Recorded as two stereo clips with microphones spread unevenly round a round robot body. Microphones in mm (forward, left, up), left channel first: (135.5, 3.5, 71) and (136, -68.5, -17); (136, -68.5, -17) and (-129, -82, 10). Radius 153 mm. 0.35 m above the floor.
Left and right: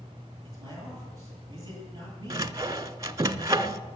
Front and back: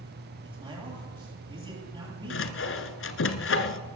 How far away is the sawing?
About 1.1 m.